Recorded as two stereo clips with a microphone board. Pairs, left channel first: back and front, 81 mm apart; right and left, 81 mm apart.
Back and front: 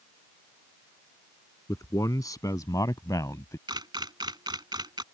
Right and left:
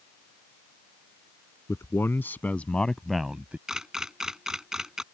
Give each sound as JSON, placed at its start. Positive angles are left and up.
{"t": 1.7, "sound": "a man speaking", "azimuth_deg": -140}
{"t": 3.7, "sound": "a camera shutter", "azimuth_deg": 5}